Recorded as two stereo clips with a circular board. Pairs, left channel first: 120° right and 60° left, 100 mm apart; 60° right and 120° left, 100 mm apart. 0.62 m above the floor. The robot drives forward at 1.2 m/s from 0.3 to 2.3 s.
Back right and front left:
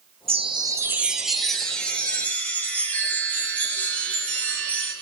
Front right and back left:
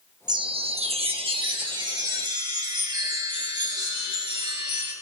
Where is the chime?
75° left, 0.7 m; by 4.9 s 165° left, 2.5 m.